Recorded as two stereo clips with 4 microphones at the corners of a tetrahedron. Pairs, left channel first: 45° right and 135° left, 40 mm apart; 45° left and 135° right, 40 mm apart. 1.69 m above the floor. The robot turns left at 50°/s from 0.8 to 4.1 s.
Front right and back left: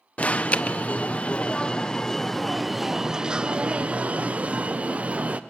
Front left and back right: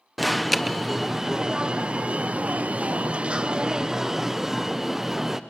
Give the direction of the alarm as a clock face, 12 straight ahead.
1 o'clock.